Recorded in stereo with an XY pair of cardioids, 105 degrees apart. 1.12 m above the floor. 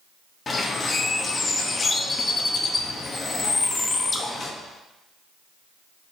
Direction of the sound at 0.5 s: 35° left.